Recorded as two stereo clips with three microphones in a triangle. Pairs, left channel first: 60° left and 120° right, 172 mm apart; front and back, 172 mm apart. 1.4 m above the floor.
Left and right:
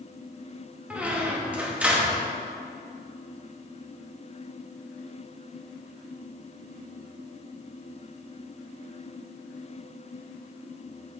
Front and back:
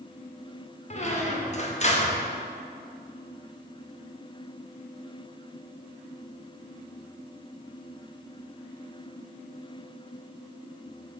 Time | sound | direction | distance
0.9 | a squeak | 40° right | 1.0 m